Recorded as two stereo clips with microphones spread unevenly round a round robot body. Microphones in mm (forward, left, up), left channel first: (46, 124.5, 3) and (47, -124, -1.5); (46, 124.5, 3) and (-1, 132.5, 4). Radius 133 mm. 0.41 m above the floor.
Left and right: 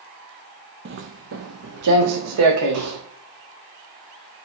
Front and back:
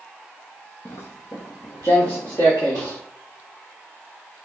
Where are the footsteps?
50° right, 0.7 m; by 3.0 s 80° right, 1.8 m.